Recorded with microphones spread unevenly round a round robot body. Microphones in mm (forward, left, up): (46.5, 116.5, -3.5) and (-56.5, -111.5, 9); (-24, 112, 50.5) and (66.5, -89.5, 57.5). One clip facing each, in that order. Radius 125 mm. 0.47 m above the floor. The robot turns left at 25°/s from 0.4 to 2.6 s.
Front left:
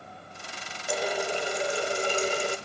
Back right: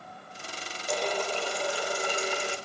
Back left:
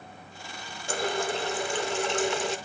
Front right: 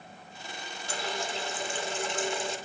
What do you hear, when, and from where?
0.9 s a running tap: 150° left, 0.8 m; by 2.6 s 110° left, 0.8 m